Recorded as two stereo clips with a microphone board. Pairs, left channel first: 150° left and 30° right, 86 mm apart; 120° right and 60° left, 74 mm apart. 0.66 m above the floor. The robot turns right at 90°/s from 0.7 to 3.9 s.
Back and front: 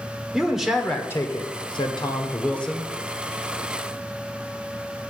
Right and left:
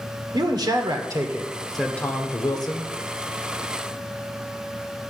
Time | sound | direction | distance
0.3 | a man speaking | 55° left | 1.7 m